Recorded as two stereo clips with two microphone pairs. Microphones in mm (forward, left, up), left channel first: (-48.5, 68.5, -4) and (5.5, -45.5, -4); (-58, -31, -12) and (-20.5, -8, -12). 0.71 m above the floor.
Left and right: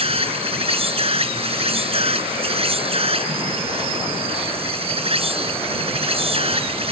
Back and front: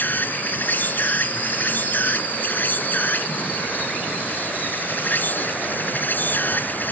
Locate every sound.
0.0 s an insect: 105° right